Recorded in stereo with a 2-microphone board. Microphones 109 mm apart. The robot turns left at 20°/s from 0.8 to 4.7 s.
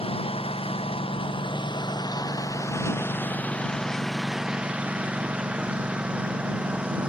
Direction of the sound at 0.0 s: 70° left.